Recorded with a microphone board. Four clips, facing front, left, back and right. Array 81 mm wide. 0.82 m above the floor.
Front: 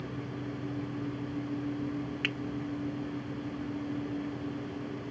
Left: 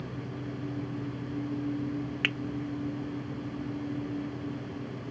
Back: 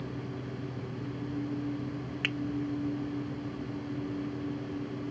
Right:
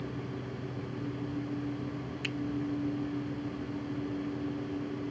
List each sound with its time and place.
2.2 s a finger snap: 90° left